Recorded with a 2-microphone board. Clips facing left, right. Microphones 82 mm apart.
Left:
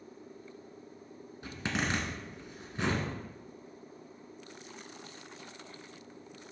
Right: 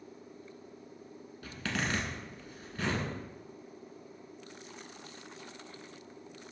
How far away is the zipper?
About 1.5 m.